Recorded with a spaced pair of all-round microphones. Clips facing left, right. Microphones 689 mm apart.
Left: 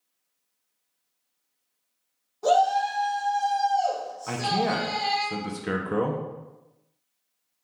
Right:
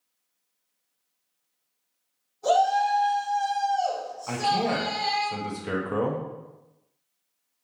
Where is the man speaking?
50° left (ahead or behind), 0.6 m.